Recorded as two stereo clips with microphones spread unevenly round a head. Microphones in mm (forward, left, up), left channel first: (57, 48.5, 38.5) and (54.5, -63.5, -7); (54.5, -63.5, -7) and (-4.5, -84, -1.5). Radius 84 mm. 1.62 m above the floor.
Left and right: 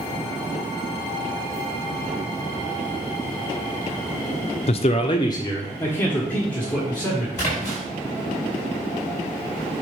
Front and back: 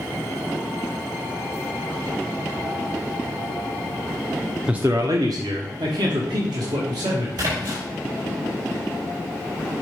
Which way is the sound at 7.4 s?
160° left.